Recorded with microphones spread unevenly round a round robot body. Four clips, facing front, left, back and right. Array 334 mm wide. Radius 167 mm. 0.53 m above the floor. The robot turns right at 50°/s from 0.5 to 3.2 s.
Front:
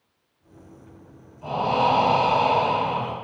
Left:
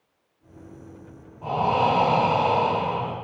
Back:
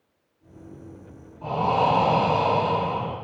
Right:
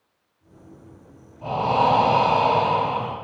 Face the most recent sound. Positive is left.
turn(degrees=-35)